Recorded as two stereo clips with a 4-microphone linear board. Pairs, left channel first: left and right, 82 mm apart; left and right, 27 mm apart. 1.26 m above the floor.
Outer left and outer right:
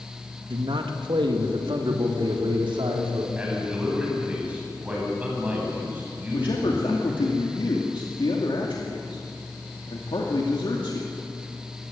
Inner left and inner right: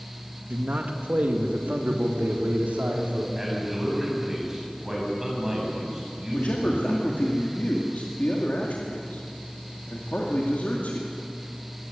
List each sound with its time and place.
0.5 s a man speaking: 80° right, 1.8 m
3.4 s a man speaking: 20° right (ahead or behind), 9.5 m
6.3 s a man speaking: 85° left, 2.5 m